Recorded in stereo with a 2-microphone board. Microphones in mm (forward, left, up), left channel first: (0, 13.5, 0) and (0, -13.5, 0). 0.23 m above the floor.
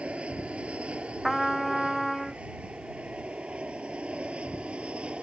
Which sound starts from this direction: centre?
A trumpet, at 1.2 s.